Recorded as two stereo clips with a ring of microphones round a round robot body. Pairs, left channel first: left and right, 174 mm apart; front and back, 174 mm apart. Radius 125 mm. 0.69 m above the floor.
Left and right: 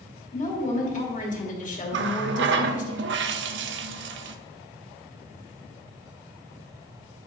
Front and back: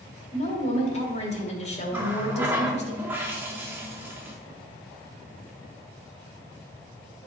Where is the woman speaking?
50° left, 2.5 m.